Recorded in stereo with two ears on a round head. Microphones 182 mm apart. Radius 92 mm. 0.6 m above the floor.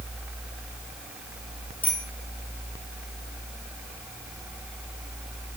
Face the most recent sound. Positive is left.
turn(degrees=10)  # may be behind; listen again after turning